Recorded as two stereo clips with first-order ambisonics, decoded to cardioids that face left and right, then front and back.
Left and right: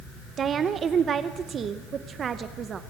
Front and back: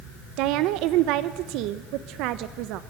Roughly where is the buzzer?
I don't hear a buzzer.